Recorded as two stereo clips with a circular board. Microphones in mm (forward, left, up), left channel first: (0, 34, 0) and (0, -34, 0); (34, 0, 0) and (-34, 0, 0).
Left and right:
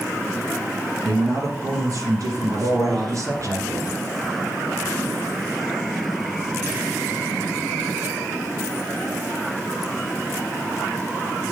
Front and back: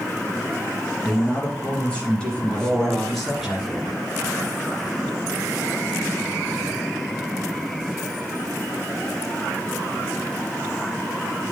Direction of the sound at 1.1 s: 65° right.